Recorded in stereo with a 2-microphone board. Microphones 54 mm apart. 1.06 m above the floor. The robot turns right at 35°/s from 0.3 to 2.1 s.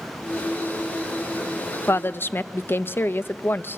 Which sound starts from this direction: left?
A woman speaking, at 1.9 s.